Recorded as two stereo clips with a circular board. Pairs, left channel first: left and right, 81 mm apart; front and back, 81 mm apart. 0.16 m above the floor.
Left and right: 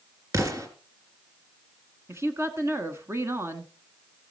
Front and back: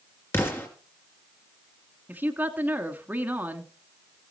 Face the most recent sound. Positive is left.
turn(degrees=-120)